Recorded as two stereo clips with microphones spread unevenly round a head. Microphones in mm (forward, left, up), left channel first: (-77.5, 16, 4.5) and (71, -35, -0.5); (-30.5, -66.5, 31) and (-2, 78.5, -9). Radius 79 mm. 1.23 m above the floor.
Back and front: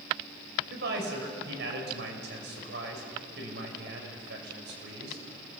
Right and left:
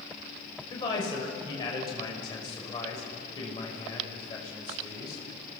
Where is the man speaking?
40° right, 6 m.